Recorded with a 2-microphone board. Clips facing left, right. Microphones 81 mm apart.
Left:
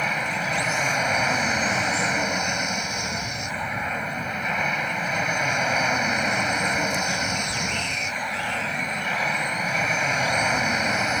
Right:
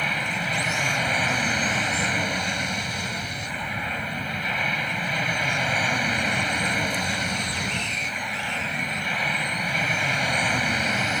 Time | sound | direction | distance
0.0 | an aircraft | 15° left (ahead or behind) | ?